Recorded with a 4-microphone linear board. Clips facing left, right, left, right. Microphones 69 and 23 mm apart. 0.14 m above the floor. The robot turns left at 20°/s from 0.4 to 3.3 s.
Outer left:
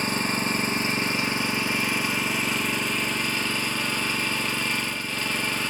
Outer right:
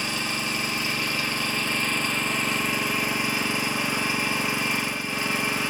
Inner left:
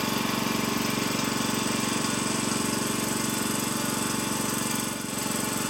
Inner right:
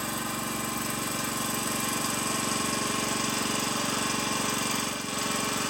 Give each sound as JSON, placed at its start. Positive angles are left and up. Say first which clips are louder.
{"t": 0.0, "sound": "an engine running", "louder": "outer left 3 dB, inner left 5 dB", "azimuth_deg": 40, "distance_m": 1.5}